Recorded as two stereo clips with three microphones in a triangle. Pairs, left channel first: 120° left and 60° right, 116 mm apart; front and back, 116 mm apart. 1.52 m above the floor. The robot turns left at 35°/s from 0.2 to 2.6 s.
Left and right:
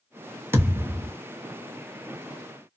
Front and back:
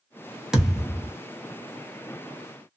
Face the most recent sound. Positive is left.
turn(degrees=-175)